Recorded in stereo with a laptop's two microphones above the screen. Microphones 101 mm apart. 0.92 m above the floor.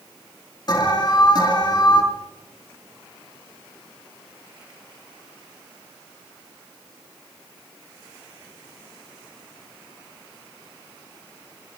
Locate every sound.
0.7 s an alarm: 45° left (ahead or behind), 3.5 m